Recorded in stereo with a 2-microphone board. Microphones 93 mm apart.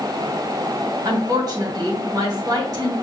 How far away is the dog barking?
I don't hear a dog barking.